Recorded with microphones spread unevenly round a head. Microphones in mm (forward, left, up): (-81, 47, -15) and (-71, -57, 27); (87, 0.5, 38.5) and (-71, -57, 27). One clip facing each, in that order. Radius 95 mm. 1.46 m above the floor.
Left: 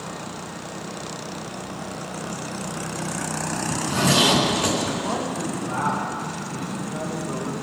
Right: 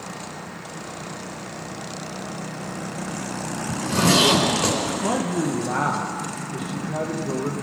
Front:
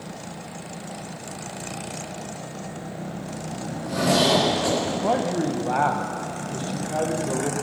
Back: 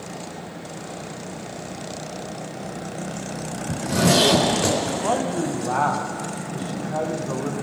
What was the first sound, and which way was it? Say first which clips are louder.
A zipper: right 2 dB, back 3 dB; 125° right.